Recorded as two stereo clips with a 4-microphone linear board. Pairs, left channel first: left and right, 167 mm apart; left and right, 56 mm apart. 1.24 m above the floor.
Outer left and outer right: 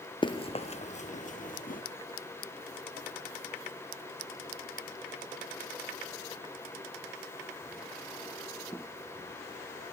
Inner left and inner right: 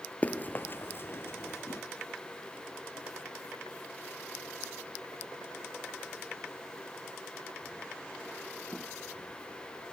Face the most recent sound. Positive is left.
turn(degrees=55)  # may be behind; listen again after turning